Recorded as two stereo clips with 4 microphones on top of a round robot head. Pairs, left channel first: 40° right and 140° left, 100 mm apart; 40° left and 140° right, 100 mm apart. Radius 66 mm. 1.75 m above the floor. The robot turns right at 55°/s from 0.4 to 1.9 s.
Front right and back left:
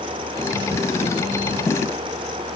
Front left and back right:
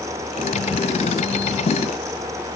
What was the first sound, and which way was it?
Only background noise.